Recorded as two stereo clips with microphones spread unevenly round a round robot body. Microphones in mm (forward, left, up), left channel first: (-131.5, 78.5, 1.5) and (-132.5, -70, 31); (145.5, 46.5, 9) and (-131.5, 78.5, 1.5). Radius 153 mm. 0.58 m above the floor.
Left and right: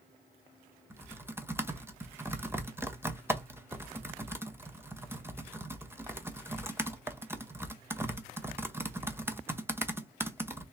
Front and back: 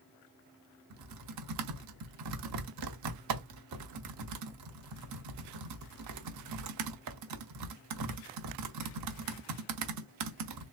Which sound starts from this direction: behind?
Typing on a keyboard, at 0.9 s.